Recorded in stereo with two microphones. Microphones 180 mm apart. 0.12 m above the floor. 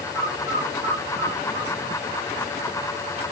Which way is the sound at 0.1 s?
80° left.